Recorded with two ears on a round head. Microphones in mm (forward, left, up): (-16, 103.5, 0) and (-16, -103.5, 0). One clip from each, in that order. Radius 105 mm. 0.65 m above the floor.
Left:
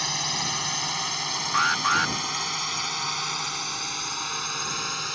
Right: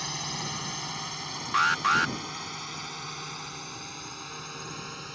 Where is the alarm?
5° right (ahead or behind).